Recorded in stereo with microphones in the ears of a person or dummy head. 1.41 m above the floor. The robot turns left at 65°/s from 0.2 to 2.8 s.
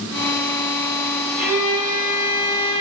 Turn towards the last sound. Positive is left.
turn(degrees=-100)